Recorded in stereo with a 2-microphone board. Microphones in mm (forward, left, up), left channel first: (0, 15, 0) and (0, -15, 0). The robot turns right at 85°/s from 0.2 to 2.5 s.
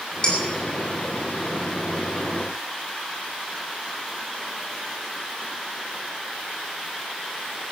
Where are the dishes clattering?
30° left (ahead or behind), 4.5 m; by 0.4 s 20° left (ahead or behind), 4.5 m.